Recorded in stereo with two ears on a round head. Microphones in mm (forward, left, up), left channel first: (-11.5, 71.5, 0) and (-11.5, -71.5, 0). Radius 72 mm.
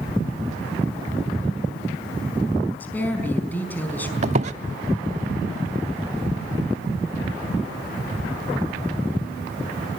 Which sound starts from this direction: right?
A squeak, at 4.2 s.